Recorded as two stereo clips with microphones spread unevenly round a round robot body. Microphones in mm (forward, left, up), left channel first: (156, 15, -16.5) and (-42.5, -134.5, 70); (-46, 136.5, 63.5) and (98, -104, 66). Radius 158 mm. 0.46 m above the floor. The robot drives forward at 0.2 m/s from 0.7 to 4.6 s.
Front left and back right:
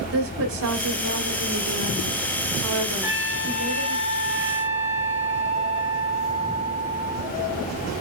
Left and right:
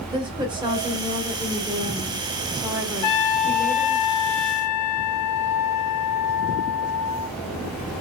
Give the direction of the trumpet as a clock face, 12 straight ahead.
9 o'clock.